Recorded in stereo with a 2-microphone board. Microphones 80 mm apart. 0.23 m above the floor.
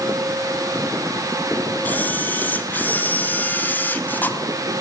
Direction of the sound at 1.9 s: 25° left (ahead or behind).